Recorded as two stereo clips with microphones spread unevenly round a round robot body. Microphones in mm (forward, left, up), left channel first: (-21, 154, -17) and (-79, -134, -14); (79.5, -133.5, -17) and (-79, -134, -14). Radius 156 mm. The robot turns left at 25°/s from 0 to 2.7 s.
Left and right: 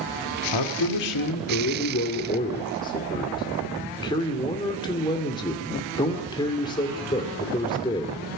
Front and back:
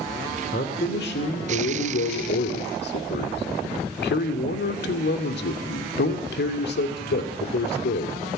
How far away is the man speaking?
About 2.5 m.